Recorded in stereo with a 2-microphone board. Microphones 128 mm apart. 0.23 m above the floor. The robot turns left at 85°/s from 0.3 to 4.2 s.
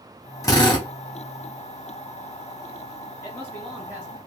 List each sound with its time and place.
0.4 s a drill: 140° left, 1.2 m; by 0.9 s 105° left, 1.2 m
3.2 s a man speaking: 35° left, 1.3 m; by 4.2 s 45° right, 1.3 m